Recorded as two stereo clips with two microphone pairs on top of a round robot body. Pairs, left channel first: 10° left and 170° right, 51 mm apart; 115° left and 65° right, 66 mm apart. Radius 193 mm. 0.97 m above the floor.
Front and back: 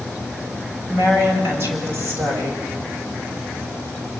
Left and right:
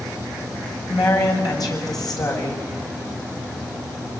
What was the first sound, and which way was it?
A woman speaking, 145° left.